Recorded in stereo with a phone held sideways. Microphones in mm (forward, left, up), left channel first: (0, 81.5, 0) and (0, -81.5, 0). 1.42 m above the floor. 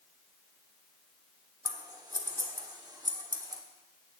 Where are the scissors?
25° right (ahead or behind), 1.2 m.